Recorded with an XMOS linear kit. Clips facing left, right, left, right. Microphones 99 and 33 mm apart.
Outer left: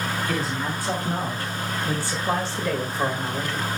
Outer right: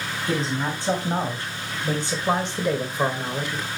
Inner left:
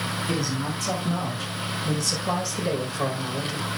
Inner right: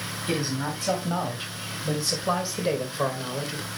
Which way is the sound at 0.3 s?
25° right (ahead or behind).